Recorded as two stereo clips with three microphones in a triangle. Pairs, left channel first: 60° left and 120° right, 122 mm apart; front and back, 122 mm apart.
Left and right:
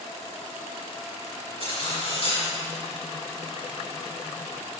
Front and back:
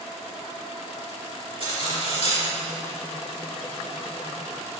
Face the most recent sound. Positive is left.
turn(degrees=25)